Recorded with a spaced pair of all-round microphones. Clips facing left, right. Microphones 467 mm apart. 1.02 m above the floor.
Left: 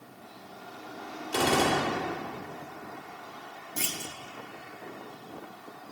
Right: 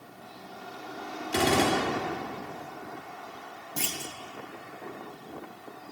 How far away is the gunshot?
About 1.3 m.